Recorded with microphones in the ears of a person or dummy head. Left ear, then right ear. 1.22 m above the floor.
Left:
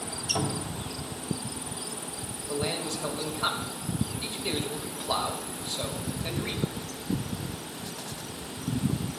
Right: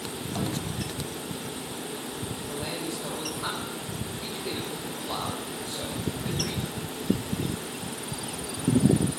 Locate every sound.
0.3 s a cupboard door: 75° left (ahead or behind), 1.9 m
2.5 s a man speaking: 35° left (ahead or behind), 1.7 m